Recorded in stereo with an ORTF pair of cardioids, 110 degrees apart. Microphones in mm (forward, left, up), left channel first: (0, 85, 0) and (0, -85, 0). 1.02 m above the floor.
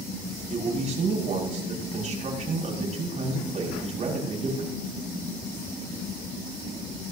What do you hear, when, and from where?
0.5 s a man speaking: 45° right, 6.5 m